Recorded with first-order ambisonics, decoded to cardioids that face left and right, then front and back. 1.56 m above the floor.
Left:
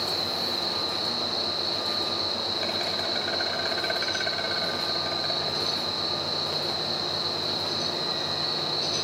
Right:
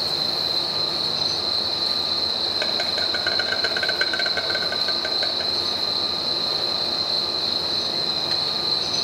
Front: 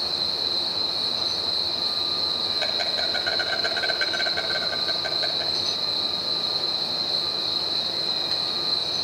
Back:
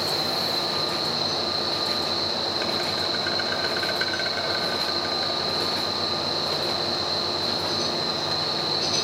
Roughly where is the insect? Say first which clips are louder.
Right 4 dB, even; right.